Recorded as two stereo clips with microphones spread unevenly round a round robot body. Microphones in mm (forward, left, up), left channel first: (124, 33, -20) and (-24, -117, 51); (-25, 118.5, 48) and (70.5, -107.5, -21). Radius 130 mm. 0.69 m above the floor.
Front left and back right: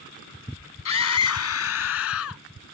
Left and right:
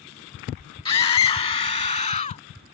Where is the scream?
40° left; by 2.4 s 50° left.